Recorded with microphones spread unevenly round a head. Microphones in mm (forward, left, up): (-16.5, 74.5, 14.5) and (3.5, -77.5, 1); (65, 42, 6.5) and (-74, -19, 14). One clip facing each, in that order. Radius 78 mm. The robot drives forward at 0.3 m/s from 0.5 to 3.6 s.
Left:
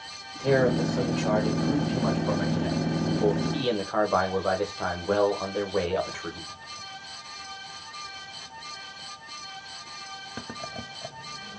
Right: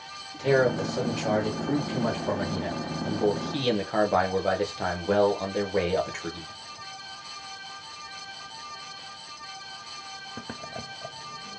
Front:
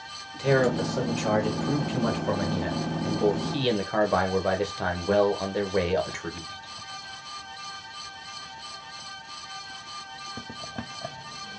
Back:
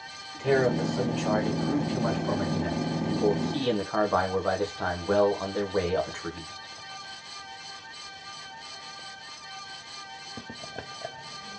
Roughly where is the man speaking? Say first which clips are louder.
Even, front 1 dB; ahead.